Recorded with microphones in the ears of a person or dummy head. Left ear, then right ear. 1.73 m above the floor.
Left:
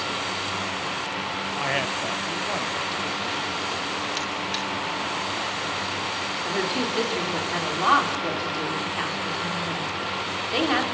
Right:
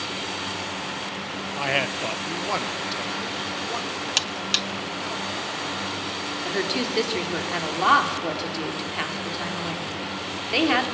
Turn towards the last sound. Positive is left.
turn(degrees=-15)  # may be behind; listen again after turning